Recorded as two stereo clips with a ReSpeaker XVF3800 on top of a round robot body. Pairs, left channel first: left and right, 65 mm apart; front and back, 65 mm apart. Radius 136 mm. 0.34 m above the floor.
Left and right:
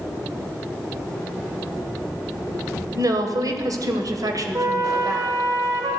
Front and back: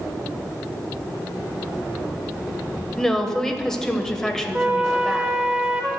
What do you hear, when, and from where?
3.0 s a woman speaking: 80° right, 1.7 m
4.5 s a flute: 100° right, 1.6 m